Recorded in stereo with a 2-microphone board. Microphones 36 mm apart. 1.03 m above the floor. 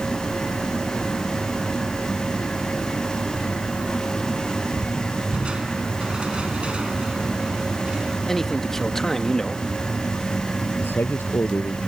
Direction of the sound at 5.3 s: 30° right (ahead or behind).